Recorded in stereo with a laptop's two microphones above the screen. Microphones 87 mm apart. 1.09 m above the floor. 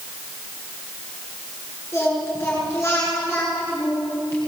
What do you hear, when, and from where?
1.9 s singing: 30° left (ahead or behind), 9.5 m